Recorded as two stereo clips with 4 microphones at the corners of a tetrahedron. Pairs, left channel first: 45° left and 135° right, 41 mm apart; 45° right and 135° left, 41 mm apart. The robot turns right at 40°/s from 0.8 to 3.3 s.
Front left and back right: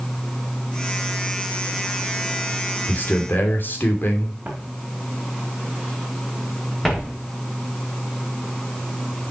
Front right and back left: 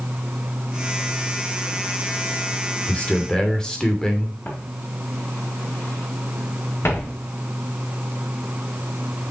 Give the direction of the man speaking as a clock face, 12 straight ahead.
12 o'clock.